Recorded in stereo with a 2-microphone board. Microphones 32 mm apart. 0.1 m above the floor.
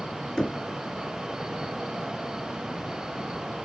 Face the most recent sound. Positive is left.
turn(degrees=15)  # may be behind; listen again after turning